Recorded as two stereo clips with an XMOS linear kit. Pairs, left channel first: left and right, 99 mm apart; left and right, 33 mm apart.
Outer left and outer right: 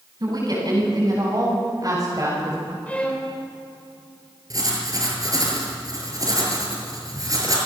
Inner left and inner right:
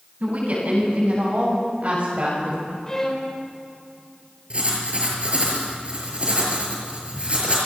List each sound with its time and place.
0.2 s a woman speaking: 50° right (ahead or behind), 8.5 m; by 2.8 s 40° right (ahead or behind), 6 m
2.9 s a violin: 15° left (ahead or behind), 4.5 m
4.5 s writing: 40° right (ahead or behind), 6.5 m